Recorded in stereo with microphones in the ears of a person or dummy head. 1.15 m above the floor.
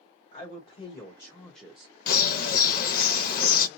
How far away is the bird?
About 0.8 m.